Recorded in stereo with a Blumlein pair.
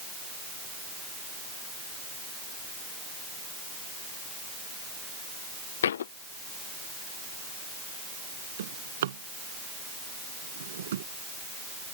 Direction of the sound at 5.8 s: 65° left.